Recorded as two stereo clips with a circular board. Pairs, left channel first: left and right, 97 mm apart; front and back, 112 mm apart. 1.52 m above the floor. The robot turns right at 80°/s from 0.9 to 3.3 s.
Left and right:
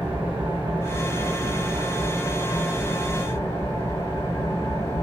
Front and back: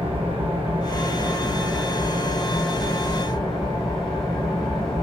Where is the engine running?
160° right, 2.5 m; by 5.0 s 35° left, 2.5 m.